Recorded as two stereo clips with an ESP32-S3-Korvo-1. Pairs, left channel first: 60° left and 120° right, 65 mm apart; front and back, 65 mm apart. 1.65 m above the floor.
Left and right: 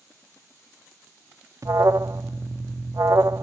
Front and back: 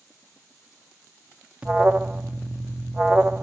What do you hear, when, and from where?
1.6 s an alarm: 115° right, 0.7 m